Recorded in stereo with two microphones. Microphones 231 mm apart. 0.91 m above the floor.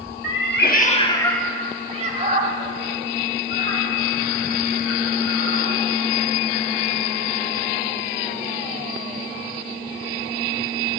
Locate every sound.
0.2 s a cat meowing: 60° left (ahead or behind), 1.1 m; by 5.6 s 65° right (ahead or behind), 4 m